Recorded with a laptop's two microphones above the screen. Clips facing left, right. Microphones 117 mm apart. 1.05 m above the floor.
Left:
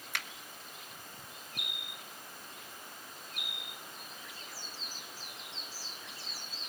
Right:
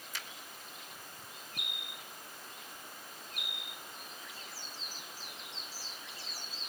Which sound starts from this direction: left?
A finger snap, at 0.1 s.